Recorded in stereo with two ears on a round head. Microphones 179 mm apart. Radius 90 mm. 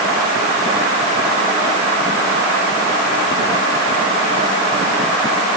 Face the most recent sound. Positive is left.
No sound to turn to.